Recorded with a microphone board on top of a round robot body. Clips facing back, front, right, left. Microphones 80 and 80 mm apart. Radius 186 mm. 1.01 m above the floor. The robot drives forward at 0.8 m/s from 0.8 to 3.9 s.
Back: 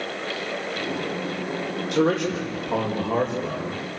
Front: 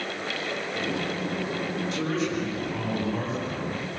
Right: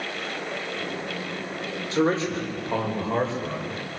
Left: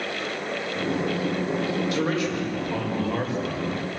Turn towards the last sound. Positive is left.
turn(degrees=-160)